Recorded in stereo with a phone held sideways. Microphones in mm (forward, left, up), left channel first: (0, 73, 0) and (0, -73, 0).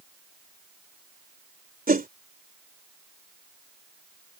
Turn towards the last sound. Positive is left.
turn(degrees=-85)